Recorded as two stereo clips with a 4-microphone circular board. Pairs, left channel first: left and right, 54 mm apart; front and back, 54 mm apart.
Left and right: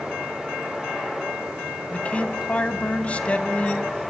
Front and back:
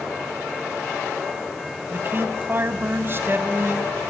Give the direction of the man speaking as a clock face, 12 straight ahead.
7 o'clock.